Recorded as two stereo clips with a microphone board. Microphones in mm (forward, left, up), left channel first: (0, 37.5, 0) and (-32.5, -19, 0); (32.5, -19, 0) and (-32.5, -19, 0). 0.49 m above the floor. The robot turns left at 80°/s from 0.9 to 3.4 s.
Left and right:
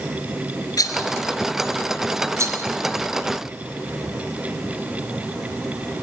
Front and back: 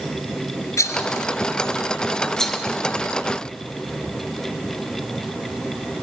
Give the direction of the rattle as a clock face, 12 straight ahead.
11 o'clock.